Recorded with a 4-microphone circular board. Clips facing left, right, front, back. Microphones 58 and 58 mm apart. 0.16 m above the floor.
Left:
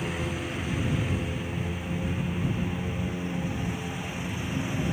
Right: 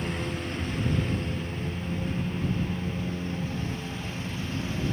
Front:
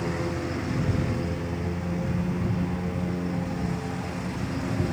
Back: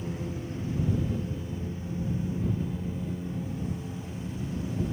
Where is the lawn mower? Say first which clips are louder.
Even, front 7 dB; 5° left; by 4.9 s 15° left.